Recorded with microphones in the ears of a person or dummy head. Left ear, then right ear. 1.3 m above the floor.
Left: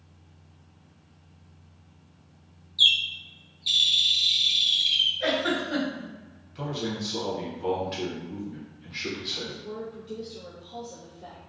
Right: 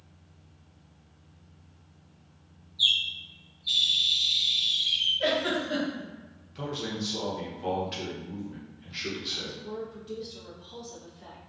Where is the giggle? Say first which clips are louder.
Left 1 dB; 30° right (ahead or behind), 1.7 m.